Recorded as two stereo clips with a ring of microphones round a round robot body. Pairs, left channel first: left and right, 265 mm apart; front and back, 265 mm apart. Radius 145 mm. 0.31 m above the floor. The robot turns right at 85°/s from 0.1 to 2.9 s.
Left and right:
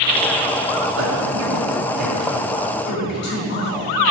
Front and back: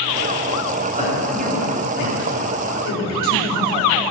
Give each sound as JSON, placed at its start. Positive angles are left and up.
{"t": 1.0, "sound": "a man speaking", "azimuth_deg": -125, "distance_m": 3.5}